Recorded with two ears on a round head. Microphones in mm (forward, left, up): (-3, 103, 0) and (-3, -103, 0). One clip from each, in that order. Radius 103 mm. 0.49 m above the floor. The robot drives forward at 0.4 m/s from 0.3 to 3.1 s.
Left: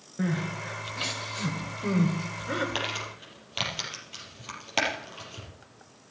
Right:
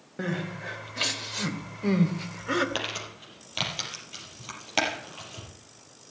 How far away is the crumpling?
About 5 m.